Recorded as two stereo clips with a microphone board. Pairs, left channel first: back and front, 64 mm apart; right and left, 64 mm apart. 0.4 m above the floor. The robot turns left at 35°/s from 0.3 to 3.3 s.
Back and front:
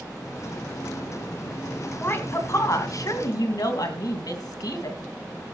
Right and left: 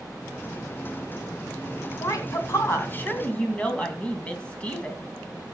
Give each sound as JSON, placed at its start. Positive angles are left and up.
{"t": 2.0, "sound": "a woman speaking", "azimuth_deg": -115, "distance_m": 2.5}